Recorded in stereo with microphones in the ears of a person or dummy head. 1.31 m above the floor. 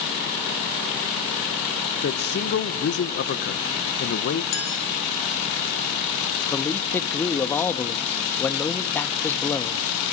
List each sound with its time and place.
2.0 s a man speaking: 55° left (ahead or behind), 1.4 m
4.5 s a clink: 70° left (ahead or behind), 7 m
6.5 s a man speaking: 10° left (ahead or behind), 1.3 m